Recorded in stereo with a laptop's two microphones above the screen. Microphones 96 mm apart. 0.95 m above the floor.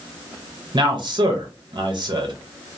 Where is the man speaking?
50° right (ahead or behind), 0.7 m.